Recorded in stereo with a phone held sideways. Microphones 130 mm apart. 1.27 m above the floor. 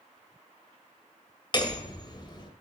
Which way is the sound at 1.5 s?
35° left (ahead or behind).